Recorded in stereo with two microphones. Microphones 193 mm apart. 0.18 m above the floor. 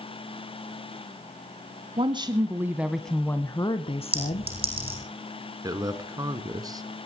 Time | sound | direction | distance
2.0 | a woman speaking | 30° right (ahead or behind) | 1.2 m
4.1 | a clink | 30° right (ahead or behind) | 6 m
5.6 | a man speaking | 20° right (ahead or behind) | 1.8 m